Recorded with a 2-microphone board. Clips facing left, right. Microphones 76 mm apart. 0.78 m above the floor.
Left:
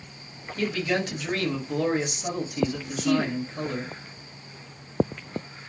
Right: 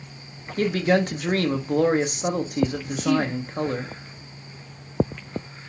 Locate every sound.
0.6 s a man speaking: 45° right (ahead or behind), 0.8 m
3.0 s a woman speaking: 55° left (ahead or behind), 1.9 m